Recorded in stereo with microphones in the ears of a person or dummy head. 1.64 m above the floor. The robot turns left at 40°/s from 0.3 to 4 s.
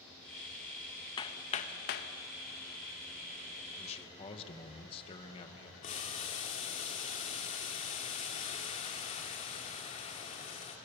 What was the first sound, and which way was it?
Hammering, 25° left (ahead or behind).